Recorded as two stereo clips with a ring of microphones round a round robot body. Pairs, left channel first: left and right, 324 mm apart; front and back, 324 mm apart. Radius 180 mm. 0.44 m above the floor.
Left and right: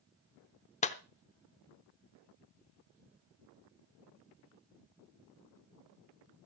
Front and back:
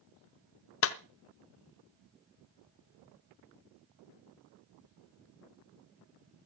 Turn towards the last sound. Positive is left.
turn(degrees=30)